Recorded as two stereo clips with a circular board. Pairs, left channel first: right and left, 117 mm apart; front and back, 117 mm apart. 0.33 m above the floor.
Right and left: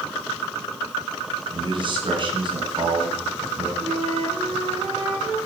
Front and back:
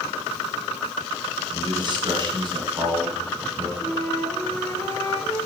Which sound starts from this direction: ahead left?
A flute, at 3.8 s.